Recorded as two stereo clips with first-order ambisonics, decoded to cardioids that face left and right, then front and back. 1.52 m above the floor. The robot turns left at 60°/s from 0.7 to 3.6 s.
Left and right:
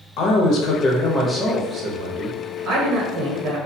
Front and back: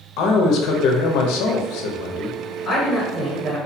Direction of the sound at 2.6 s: 55° right.